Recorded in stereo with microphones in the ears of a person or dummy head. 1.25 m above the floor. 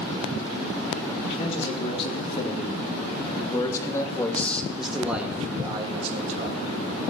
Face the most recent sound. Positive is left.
turn(degrees=-40)  # may be behind; listen again after turning